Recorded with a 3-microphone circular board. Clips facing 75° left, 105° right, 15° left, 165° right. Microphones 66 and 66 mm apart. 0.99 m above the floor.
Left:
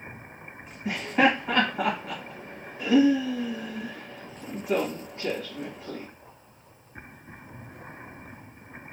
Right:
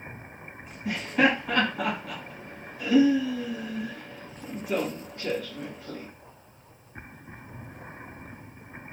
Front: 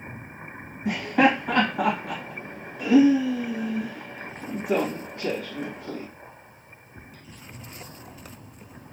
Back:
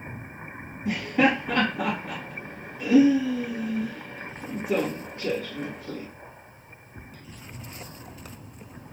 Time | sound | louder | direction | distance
0.8 | laughter | left 1 dB, front 2 dB | 15° left | 1.4 m